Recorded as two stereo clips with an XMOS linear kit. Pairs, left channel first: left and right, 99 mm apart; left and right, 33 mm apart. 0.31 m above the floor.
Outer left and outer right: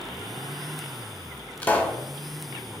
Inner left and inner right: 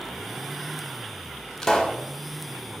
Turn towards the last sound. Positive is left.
turn(degrees=15)  # may be behind; listen again after turning